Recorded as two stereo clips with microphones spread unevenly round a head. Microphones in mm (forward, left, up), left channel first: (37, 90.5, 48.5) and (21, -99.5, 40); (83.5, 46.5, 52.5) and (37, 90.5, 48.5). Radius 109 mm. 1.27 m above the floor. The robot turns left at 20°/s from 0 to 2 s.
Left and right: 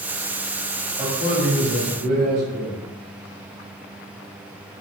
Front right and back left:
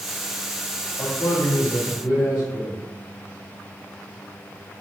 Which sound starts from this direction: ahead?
A man speaking, at 1.0 s.